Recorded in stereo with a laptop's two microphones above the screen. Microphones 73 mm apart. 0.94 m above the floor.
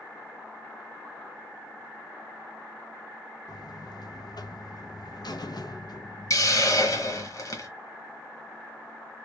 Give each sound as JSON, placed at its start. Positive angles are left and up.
{"t": 3.5, "sound": "a buzzer", "side_deg": 65, "distance_m": 0.6}
{"t": 6.3, "sound": "a hiss", "side_deg": 50, "distance_m": 1.1}